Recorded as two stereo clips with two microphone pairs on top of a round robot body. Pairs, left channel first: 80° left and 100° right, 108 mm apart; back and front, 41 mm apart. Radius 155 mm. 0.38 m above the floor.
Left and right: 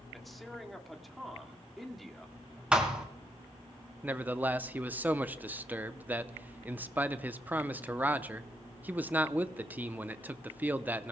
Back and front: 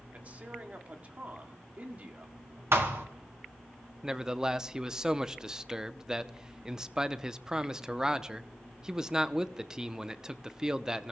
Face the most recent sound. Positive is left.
turn(degrees=-55)